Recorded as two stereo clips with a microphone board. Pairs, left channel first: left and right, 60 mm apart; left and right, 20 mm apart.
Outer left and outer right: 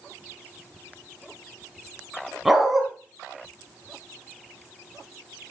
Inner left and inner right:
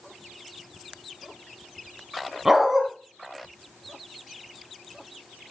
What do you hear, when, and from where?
2.5 s a dog barking: 5° right (ahead or behind), 2 m